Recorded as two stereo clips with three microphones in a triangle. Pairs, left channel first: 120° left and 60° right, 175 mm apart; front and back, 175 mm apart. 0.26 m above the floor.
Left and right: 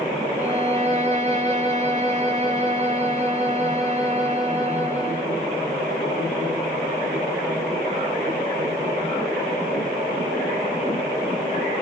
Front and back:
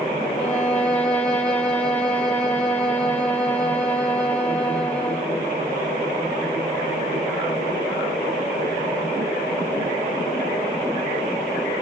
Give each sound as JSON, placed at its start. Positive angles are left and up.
{"t": 0.4, "sound": "a violin", "azimuth_deg": -80, "distance_m": 1.6}